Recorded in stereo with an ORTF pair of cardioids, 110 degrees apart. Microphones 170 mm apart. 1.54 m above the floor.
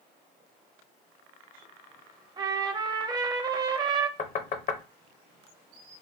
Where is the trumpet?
25° right, 0.5 m.